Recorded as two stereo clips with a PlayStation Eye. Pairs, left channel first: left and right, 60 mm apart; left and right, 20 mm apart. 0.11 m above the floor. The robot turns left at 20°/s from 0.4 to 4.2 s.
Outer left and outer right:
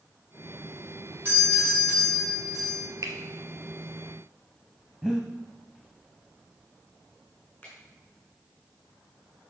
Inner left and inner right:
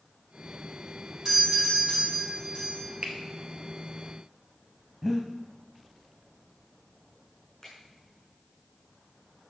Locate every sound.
1.2 s a doorbell: 30° right, 5.5 m; by 2.8 s 65° right, 5.5 m
3.0 s a finger snap: 55° right (ahead or behind), 1.8 m
5.0 s breathing: 15° right (ahead or behind), 1.8 m
7.6 s a finger snap: 20° left (ahead or behind), 5.5 m